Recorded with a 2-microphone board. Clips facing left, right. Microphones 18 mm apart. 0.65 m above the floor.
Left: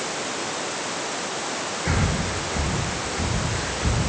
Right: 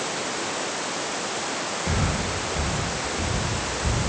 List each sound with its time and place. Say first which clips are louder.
1.9 s breathing: left 2 dB; 70° left (ahead or behind), 7 m